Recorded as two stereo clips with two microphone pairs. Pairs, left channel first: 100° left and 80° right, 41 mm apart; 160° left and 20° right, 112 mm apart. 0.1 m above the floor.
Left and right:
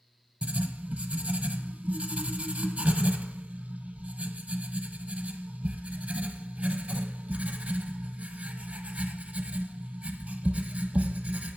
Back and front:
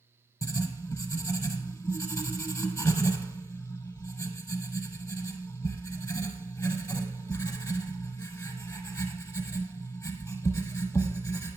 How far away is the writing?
About 0.9 m.